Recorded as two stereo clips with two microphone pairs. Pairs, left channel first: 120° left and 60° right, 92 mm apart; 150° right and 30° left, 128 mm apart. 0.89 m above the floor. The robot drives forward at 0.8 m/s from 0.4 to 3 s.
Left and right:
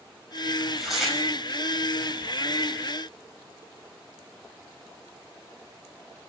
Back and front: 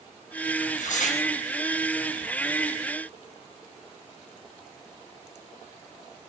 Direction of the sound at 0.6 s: 145° right.